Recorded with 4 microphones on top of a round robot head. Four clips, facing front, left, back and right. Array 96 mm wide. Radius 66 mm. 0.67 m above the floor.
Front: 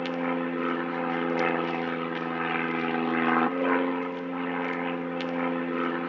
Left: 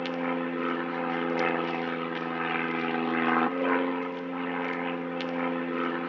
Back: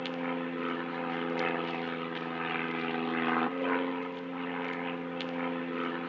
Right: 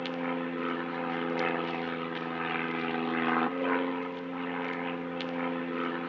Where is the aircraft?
30° left.